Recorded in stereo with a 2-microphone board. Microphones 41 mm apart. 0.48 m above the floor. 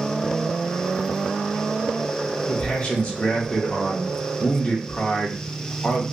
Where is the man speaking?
30° left (ahead or behind), 0.7 m.